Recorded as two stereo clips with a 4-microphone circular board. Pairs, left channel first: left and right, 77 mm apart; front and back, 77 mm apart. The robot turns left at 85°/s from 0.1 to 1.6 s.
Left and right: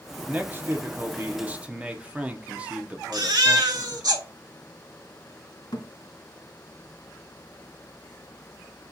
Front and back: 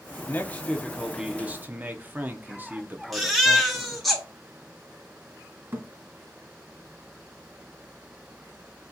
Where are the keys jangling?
I don't hear keys jangling.